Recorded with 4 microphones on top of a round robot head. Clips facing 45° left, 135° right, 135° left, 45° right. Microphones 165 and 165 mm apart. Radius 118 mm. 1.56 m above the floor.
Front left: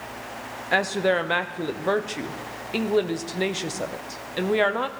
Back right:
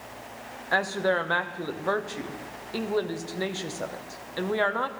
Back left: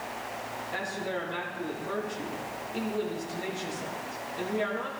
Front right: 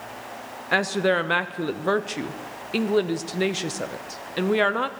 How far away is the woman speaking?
About 0.7 m.